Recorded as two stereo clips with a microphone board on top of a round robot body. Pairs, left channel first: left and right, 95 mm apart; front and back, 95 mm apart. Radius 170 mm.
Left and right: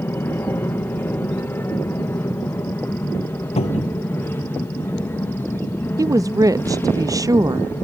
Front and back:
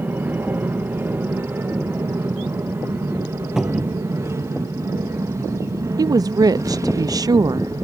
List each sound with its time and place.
0.0 s an aircraft: 135° left; by 7.8 s 145° left
3.6 s a cupboard door: 95° left
6.0 s a woman speaking: 135° right